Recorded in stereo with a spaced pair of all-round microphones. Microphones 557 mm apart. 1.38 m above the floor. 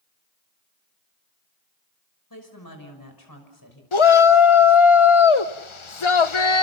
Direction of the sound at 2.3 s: 35° left (ahead or behind).